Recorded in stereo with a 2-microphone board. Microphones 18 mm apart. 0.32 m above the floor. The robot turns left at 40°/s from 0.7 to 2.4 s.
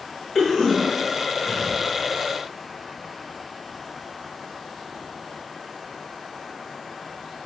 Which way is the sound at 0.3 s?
15° left (ahead or behind).